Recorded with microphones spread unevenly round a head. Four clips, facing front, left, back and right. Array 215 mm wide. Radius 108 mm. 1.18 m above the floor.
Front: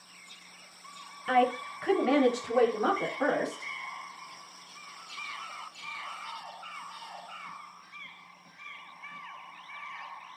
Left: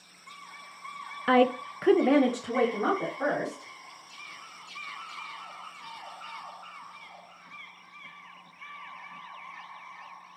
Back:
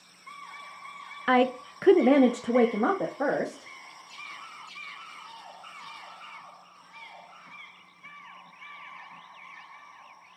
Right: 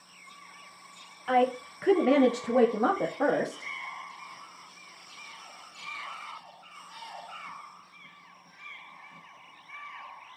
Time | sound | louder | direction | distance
1.3 | a woman speaking | left 2 dB, back 2 dB | 130° left | 1.1 m